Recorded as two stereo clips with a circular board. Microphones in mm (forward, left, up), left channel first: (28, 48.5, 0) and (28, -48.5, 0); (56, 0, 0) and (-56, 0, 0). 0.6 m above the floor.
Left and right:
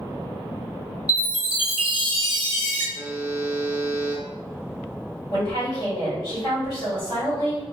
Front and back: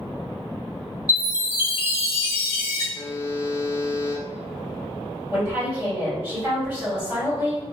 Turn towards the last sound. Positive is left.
turn(degrees=120)